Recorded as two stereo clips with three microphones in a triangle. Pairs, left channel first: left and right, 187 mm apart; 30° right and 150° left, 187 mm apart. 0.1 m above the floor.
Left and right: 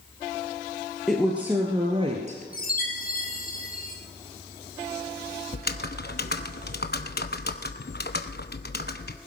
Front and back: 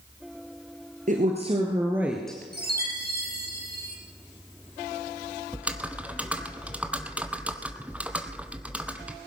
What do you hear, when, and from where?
1.1 s a woman speaking: straight behind, 2 m; by 2.4 s 110° right, 2 m
2.5 s a chime: 125° left, 3.5 m
5.5 s typing on a keyboard: 70° left, 0.8 m